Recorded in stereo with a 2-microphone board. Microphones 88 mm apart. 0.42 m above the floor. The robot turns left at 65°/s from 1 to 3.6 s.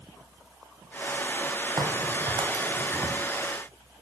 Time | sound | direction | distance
1.8 | a crack | 60° right (ahead or behind) | 1.1 m